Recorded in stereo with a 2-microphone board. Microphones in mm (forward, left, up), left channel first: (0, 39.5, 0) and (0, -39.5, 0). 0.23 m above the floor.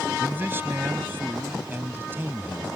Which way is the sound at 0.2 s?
30° right (ahead or behind).